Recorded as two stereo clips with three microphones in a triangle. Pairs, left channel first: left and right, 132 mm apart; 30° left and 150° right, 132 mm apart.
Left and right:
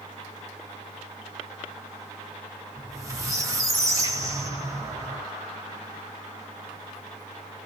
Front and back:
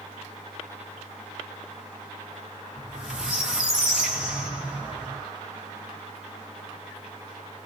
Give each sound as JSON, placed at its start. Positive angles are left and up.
{"t": 2.8, "sound": "a squeak", "azimuth_deg": -75, "distance_m": 1.1}